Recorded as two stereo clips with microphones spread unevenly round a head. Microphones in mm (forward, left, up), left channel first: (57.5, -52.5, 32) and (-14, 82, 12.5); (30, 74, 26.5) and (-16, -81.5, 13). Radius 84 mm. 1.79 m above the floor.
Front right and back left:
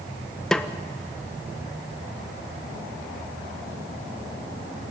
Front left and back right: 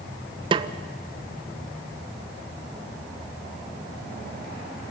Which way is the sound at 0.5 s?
125° right.